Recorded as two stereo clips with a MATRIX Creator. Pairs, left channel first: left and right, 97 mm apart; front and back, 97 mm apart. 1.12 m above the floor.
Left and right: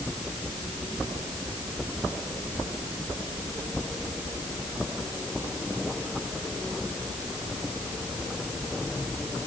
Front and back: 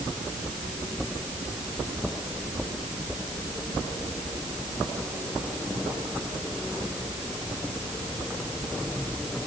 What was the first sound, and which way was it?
Only background noise.